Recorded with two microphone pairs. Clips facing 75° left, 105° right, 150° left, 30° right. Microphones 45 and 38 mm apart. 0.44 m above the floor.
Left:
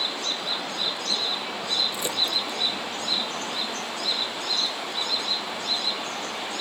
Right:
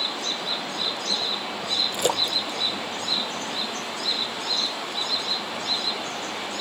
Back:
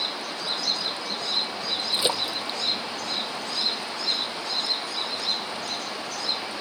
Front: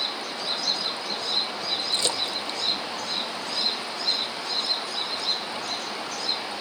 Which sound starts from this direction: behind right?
A splash, at 1.9 s.